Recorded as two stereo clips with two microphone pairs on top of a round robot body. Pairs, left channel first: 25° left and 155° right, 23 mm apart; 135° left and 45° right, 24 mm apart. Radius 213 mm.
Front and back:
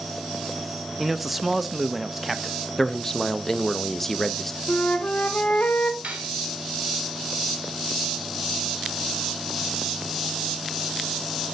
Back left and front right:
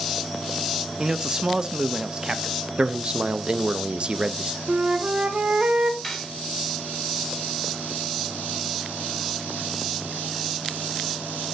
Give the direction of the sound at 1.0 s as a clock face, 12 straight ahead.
3 o'clock.